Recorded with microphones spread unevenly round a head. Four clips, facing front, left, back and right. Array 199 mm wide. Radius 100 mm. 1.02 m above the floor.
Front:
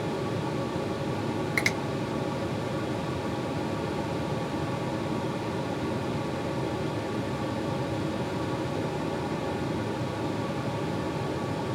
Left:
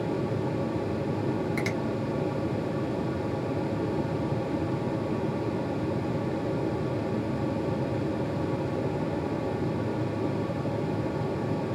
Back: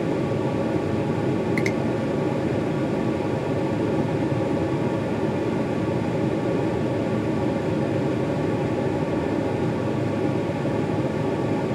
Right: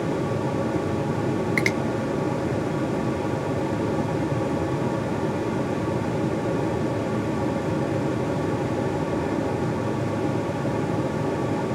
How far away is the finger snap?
About 1.8 m.